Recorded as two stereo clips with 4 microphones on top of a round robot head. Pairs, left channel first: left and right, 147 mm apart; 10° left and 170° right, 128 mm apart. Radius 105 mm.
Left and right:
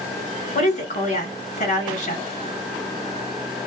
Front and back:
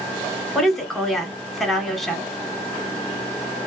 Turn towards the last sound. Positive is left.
turn(degrees=100)